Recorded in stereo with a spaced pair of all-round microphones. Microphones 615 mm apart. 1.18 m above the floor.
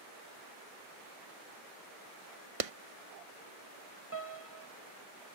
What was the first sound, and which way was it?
A clap, 60° right (ahead or behind).